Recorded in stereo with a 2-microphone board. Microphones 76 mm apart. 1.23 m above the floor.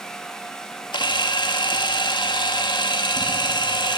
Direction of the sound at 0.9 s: 80° left.